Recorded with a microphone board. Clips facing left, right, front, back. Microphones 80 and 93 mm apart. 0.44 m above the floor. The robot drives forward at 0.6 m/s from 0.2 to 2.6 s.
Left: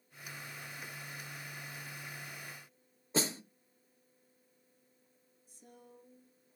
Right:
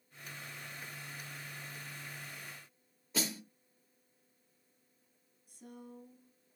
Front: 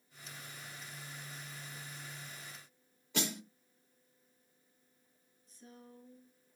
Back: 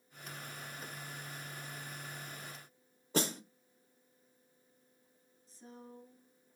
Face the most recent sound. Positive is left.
turn(degrees=-120)